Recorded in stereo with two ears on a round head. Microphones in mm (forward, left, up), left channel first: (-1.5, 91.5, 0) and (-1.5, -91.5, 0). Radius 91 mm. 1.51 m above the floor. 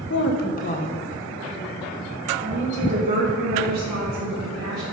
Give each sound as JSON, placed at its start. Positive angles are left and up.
{"t": 0.1, "sound": "a woman speaking", "side_deg": 60, "distance_m": 1.1}